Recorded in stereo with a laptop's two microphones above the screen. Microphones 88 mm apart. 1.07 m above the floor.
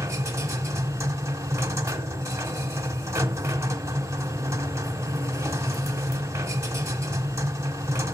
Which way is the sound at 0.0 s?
30° right (ahead or behind).